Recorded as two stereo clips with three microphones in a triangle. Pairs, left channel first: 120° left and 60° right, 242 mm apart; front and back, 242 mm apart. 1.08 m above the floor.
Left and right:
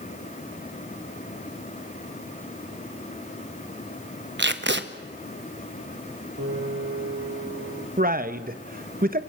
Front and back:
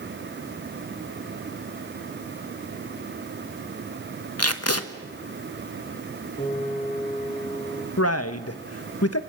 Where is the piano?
55° right, 6 m.